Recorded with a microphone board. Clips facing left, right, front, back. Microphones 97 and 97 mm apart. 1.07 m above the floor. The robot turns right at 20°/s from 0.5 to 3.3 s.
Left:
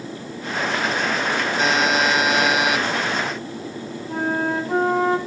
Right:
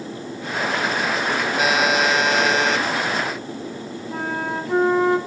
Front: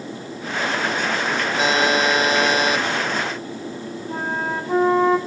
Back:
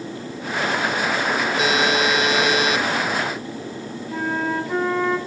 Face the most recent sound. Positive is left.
turn(degrees=50)